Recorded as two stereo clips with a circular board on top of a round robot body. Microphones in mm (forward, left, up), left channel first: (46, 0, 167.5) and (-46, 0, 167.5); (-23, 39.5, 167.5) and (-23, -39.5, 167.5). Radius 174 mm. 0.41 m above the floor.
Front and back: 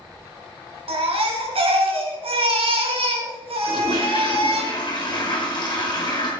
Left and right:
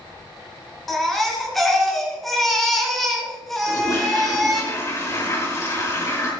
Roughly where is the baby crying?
Behind.